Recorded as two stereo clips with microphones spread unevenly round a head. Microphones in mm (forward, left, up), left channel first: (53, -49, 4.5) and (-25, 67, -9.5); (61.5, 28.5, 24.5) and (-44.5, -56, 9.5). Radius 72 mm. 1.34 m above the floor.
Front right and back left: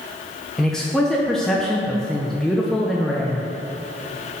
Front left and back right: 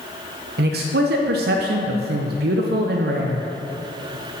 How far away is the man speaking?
About 0.6 m.